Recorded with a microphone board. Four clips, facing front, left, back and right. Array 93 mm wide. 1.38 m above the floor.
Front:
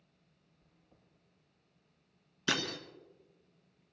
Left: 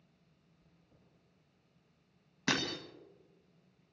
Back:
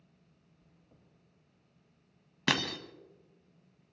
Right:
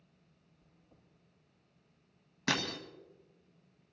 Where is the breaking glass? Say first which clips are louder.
Even, back 3 dB; straight behind, 2.0 m.